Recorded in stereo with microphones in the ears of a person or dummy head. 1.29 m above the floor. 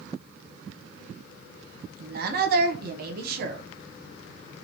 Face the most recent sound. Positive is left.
turn(degrees=-50)  # may be behind; listen again after turning